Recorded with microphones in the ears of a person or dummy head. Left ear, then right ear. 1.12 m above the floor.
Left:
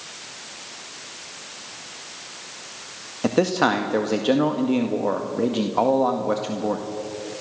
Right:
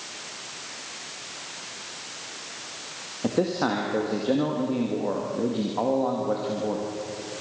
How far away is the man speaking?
About 1.8 m.